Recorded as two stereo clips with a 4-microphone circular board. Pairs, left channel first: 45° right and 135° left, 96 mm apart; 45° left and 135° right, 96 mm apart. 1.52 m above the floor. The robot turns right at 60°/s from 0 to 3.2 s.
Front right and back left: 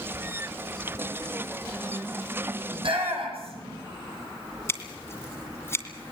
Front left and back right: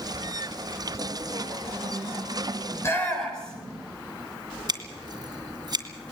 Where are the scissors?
105° right, 2.5 m.